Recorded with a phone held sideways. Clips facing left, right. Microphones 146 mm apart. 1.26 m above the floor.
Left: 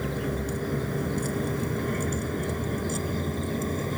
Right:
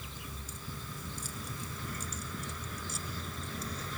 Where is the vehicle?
70° left (ahead or behind); by 4.0 s 50° left (ahead or behind).